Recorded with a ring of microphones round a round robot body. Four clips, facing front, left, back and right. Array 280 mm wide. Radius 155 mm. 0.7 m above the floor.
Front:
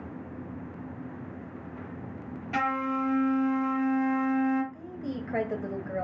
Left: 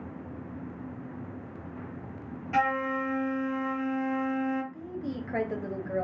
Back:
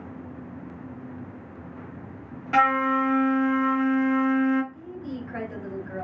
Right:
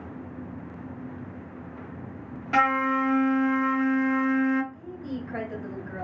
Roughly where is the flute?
Behind right.